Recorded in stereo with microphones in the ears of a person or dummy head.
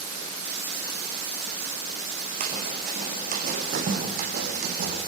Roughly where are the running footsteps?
Right.